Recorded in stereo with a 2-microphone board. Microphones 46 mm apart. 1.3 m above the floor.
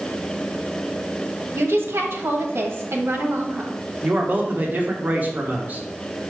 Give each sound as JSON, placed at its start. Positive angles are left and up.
{"t": 1.6, "sound": "a woman speaking", "side_deg": -65, "distance_m": 1.3}
{"t": 4.0, "sound": "a man speaking", "side_deg": -40, "distance_m": 1.2}